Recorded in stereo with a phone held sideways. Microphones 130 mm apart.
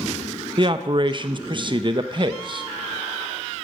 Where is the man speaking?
40° right (ahead or behind), 0.6 m.